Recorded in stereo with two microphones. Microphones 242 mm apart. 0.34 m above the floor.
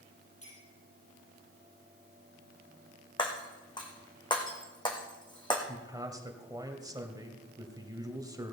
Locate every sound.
0.4 s a clink: 65° left (ahead or behind), 7.5 m
3.2 s breaking glass: 20° left (ahead or behind), 2 m
5.7 s a man speaking: 15° right (ahead or behind), 1.7 m